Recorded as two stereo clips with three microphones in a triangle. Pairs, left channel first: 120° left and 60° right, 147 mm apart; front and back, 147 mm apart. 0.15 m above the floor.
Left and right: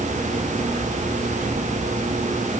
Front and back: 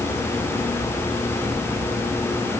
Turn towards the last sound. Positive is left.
No sound to turn to.